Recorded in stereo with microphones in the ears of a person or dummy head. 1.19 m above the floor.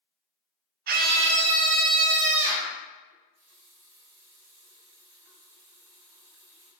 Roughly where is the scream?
Right.